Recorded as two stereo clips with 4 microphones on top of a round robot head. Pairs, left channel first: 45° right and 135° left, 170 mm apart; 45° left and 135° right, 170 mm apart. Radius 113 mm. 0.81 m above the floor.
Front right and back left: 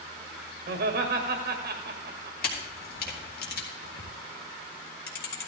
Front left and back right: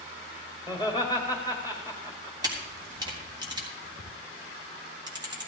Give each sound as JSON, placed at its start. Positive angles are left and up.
{"t": 0.7, "sound": "laughter", "azimuth_deg": 150, "distance_m": 1.9}
{"t": 2.4, "sound": "a camera shutter", "azimuth_deg": -70, "distance_m": 3.0}